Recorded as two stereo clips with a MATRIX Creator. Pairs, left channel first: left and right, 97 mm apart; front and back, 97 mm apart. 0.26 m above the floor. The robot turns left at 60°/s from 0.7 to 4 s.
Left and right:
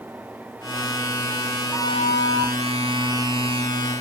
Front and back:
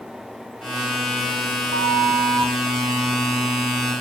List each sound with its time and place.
1.7 s a flute: 175° right, 0.5 m; by 2.5 s 135° left, 0.5 m